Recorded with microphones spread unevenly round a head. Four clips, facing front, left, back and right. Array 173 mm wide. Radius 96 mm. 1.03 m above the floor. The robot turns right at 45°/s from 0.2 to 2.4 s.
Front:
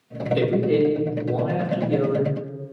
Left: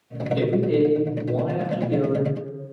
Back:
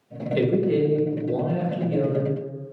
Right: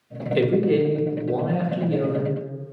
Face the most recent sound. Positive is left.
turn(degrees=0)